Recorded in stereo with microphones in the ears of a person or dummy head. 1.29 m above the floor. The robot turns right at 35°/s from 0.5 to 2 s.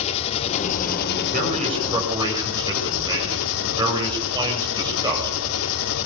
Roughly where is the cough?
No cough in this recording.